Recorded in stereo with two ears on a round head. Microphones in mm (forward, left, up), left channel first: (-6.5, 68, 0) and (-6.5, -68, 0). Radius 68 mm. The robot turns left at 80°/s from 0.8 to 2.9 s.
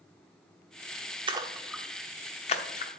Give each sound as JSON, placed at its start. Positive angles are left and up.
{"t": 1.3, "sound": "a splash", "side_deg": -35, "distance_m": 0.9}